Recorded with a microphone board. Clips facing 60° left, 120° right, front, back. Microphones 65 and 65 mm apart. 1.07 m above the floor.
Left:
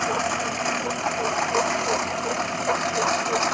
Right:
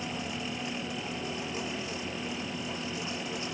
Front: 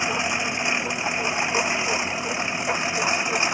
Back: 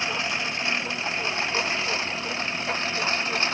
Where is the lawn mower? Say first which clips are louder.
Left 12 dB, front 3 dB; 75° left.